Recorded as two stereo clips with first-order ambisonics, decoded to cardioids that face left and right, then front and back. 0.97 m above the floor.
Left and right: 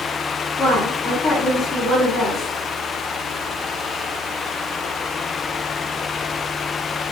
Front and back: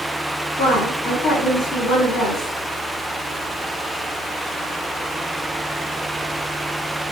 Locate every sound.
0.6 s a woman speaking: 30° left, 1.2 m